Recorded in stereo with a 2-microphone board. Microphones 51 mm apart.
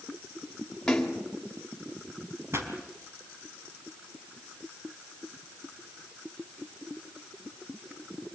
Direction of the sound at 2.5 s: 55° right (ahead or behind).